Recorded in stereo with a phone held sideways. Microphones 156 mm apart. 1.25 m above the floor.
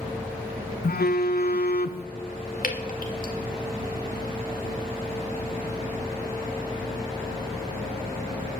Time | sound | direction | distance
0.8 | a phone buzzing | 85° left | 0.7 m
2.6 | dripping | 60° left (ahead or behind) | 1.9 m